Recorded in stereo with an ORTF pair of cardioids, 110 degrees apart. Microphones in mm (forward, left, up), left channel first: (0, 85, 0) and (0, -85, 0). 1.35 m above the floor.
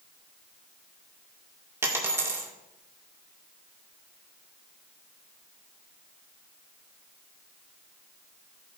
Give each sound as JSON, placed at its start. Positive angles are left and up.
{"t": 1.8, "sound": "a dropped coin", "azimuth_deg": -15, "distance_m": 1.9}